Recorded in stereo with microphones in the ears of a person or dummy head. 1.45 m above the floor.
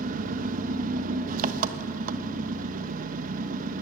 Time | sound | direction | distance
0.0 | an engine running | 45° right (ahead or behind) | 1.1 m